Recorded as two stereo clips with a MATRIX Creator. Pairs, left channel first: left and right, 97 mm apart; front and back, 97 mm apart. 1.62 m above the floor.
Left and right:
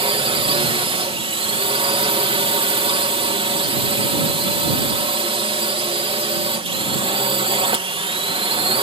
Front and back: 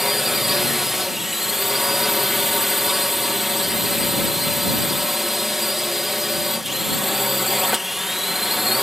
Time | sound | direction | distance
0.0 | a drone | 95° right | ?